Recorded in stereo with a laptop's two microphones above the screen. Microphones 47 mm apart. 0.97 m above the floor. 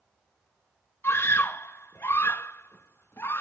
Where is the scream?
60° left (ahead or behind), 1.1 m.